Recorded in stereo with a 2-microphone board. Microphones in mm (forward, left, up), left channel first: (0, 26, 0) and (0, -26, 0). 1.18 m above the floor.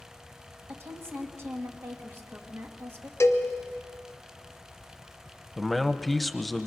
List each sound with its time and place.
0.7 s a woman speaking: 55° right (ahead or behind), 2 m
3.2 s a cowbell: 60° left (ahead or behind), 1.3 m
5.6 s a man speaking: centre (ahead or behind), 0.9 m